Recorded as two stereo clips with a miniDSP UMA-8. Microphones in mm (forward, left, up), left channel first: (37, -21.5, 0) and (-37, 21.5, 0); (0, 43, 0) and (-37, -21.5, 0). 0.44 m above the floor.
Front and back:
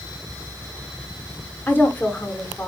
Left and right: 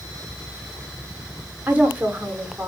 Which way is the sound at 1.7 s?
70° right.